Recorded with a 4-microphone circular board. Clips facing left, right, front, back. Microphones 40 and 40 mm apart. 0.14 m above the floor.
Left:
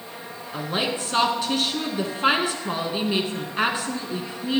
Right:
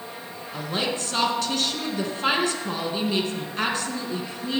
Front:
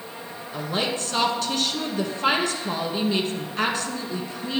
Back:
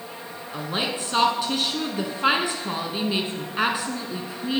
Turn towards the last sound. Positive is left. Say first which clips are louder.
# left 1 dB, front 1 dB
turn(degrees=130)